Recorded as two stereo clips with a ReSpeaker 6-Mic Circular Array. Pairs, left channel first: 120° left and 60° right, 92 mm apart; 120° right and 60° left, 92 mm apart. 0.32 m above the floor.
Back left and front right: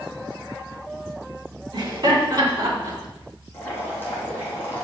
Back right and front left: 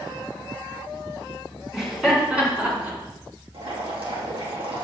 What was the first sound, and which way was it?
Laughter, 25° right.